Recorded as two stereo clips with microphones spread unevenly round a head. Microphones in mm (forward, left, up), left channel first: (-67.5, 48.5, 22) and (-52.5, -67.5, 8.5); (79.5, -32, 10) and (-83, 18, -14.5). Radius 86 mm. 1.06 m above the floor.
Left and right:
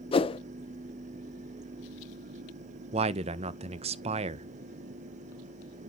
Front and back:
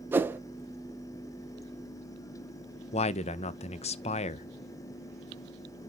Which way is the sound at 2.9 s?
70° right.